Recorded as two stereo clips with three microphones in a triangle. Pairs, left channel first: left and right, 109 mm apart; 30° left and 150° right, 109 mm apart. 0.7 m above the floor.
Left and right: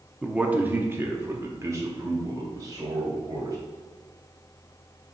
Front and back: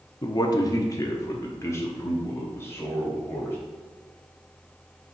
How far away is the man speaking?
About 0.8 m.